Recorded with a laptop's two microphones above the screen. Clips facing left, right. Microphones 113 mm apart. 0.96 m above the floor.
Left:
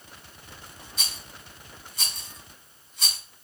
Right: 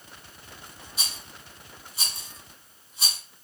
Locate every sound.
1.0 s a rattle: 10° right (ahead or behind), 1.7 m